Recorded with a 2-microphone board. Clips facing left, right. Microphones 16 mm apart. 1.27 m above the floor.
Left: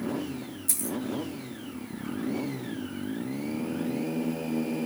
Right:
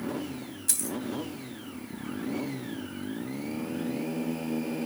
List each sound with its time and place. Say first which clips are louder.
0.7 s a dropped coin: even; 35° right (ahead or behind), 2.5 m